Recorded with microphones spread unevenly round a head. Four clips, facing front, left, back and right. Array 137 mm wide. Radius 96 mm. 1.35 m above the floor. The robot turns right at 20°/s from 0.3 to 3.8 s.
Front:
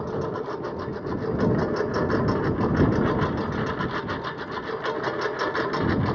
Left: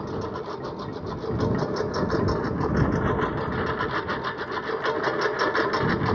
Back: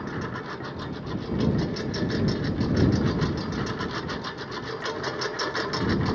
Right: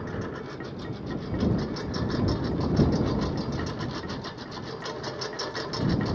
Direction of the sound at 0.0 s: 5° left.